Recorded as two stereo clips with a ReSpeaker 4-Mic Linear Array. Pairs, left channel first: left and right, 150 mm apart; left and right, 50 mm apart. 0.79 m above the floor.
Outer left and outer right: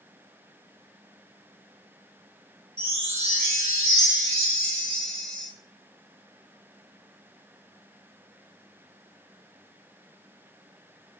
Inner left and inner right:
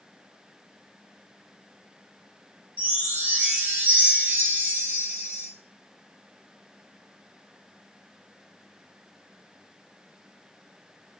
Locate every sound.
2.8 s a chime: 40° right (ahead or behind), 0.9 m